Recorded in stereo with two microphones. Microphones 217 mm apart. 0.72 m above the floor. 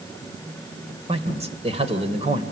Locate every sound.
1.1 s a man speaking: 30° right (ahead or behind), 2.5 m